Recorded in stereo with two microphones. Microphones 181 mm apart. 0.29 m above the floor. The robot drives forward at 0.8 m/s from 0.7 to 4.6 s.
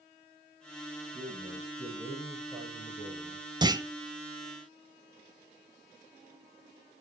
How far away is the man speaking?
About 7 m.